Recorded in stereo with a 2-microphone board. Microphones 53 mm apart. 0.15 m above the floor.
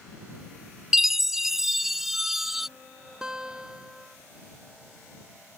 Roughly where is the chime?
Centre.